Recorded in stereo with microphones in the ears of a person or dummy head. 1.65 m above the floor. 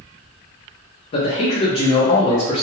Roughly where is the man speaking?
Left.